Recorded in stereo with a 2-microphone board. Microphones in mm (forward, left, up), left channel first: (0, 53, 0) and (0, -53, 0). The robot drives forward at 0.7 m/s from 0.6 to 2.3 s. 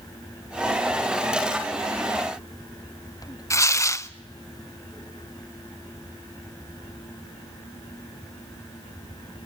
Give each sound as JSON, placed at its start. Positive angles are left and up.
{"t": 3.5, "sound": "tearing paper", "side_deg": 30, "distance_m": 0.6}